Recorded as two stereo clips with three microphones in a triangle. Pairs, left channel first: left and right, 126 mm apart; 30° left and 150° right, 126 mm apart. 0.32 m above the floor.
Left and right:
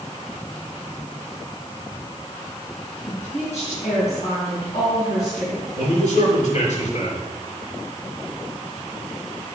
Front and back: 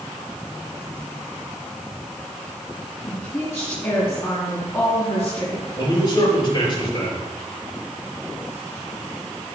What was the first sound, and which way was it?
A woman speaking, 95° left.